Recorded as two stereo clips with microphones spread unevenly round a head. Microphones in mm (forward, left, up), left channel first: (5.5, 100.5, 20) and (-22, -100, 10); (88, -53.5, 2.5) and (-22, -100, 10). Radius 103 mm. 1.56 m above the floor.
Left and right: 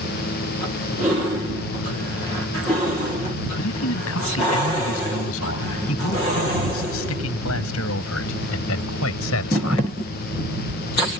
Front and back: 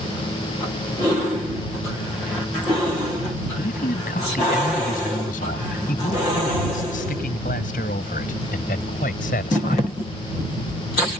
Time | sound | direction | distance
3.6 | a man speaking | 60° left | ?